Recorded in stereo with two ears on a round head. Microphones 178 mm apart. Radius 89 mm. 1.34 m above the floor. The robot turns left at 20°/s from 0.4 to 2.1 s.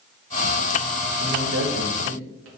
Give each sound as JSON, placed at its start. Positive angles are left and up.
{"t": 1.2, "sound": "a man speaking", "side_deg": -45, "distance_m": 1.0}